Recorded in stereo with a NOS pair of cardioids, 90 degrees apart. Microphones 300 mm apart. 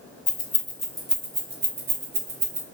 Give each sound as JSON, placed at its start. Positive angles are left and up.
{"t": 0.3, "sound": "keys jangling", "azimuth_deg": 30, "distance_m": 0.9}